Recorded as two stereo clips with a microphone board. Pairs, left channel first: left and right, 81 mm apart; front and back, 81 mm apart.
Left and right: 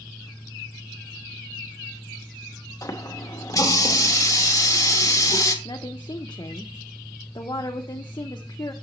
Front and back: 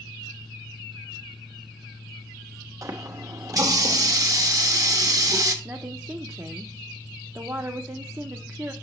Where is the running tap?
135° left, 1.1 m.